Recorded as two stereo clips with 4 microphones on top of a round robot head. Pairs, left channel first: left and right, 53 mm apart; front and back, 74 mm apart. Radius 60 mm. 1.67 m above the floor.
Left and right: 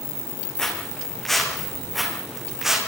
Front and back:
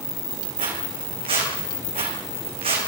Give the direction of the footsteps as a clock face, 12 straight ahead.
6 o'clock.